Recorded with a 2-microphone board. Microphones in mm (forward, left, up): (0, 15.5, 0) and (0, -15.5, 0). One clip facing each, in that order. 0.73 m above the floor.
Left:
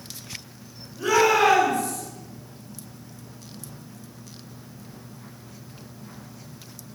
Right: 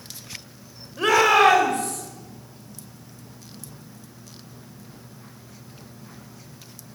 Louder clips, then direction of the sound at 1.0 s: Right 2 dB; 65° right (ahead or behind).